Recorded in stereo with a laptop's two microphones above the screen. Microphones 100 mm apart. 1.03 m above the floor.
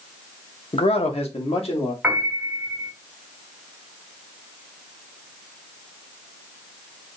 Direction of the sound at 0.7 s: 75° left (ahead or behind).